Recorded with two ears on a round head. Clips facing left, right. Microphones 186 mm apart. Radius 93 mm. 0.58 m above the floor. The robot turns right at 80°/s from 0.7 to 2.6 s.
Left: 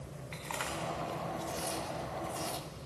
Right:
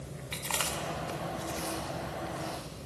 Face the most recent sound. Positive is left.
turn(degrees=60)  # may be behind; listen again after turning